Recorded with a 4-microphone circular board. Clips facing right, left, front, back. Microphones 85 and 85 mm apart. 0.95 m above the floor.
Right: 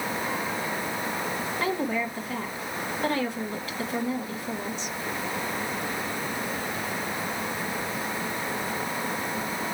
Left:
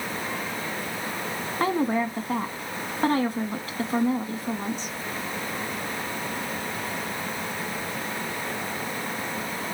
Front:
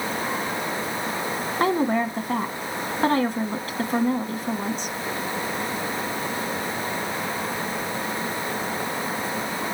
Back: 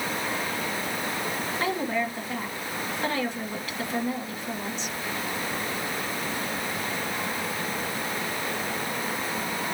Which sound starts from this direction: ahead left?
A woman speaking, at 1.6 s.